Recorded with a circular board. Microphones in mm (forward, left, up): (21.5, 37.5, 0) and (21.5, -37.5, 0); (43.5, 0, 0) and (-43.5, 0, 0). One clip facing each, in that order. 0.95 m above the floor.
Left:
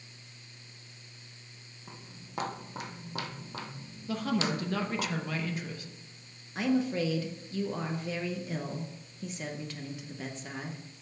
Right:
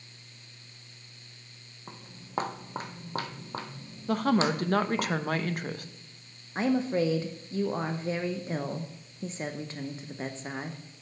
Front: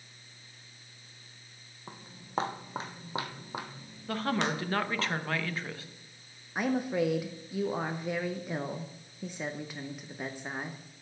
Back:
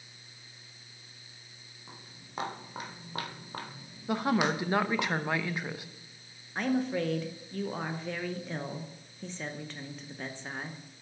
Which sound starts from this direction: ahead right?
Footsteps, at 1.9 s.